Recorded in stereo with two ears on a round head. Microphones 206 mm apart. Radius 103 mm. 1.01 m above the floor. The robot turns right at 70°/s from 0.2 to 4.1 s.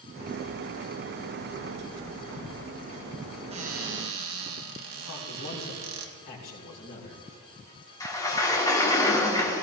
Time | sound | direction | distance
3.5 | a cupboard door | 150° right | 2 m
5.1 | a man speaking | 65° left (ahead or behind) | 4 m
8.0 | a sliding door | 15° left (ahead or behind) | 2 m